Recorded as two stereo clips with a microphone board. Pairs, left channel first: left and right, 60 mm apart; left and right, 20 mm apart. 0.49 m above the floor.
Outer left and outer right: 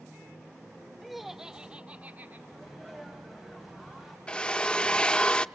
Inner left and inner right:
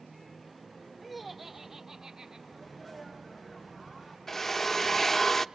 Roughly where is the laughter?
Centre.